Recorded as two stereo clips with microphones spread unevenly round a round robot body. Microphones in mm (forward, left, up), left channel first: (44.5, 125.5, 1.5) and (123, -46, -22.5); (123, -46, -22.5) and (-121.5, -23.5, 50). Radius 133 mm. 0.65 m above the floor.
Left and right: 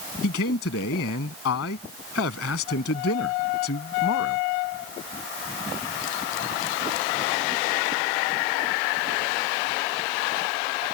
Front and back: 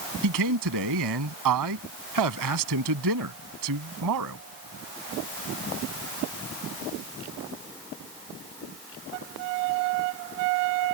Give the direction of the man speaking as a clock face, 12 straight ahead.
7 o'clock.